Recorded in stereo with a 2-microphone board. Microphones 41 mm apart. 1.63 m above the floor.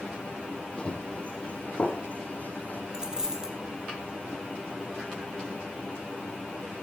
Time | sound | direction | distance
0.8 | running footsteps | 30° left (ahead or behind) | 4.5 m
2.9 | a dropped coin | 15° right (ahead or behind) | 3.5 m